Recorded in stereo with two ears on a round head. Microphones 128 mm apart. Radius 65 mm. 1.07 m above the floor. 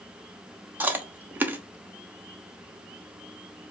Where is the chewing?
15° right (ahead or behind), 0.7 m.